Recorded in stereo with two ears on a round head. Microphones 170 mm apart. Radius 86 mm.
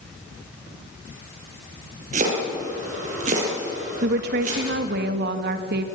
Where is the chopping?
40° right (ahead or behind), 7.5 m.